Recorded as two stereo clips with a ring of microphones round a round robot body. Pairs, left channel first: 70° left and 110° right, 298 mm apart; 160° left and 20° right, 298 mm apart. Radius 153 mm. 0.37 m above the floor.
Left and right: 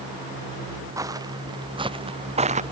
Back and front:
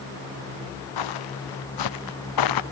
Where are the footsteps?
170° left; by 2.6 s straight behind.